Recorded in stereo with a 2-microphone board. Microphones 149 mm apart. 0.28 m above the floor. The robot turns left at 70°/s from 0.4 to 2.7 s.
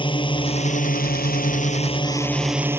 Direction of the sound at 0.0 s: 145° left.